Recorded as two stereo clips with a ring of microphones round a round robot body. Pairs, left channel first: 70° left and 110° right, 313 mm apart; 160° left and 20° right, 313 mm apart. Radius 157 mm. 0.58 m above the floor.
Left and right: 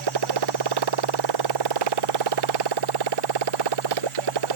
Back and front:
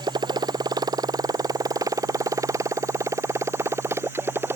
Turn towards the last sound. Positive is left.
turn(degrees=-105)